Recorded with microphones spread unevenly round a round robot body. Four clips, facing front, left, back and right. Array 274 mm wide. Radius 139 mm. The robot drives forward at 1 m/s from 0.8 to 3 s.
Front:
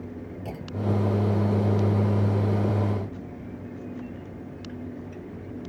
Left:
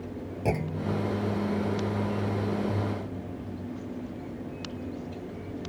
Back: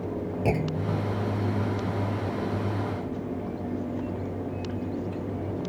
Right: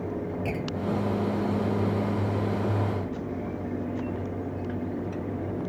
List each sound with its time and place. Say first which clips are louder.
0.5 s a clunk: left 4 dB, back 2 dB; 160° left